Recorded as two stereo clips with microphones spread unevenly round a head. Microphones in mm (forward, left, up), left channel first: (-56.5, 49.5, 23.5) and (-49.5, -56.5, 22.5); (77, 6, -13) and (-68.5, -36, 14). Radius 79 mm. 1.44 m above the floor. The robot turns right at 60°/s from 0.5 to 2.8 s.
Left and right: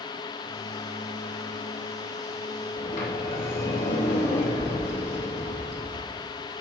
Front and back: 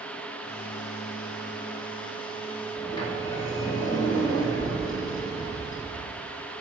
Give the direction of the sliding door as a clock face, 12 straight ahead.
9 o'clock.